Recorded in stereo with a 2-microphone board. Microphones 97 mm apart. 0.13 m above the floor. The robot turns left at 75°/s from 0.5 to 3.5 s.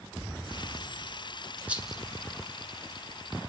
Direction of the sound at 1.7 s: 15° right (ahead or behind).